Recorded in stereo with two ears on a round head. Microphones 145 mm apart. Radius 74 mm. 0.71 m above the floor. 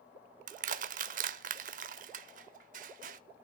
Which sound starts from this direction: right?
Crushing, at 0.5 s.